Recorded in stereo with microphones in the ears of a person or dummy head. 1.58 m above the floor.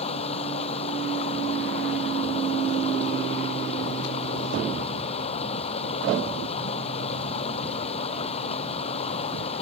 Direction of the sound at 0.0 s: 40° left (ahead or behind).